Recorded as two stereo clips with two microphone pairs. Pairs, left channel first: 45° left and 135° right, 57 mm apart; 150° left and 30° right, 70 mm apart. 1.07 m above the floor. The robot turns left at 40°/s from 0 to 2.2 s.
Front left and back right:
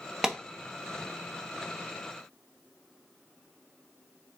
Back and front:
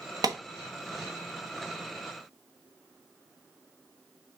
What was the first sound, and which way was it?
A clap, 55° right.